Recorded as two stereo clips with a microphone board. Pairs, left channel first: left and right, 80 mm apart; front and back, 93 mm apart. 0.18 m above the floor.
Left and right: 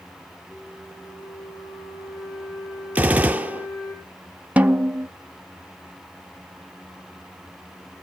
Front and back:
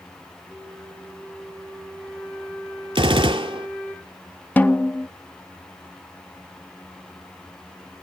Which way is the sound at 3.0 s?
160° right.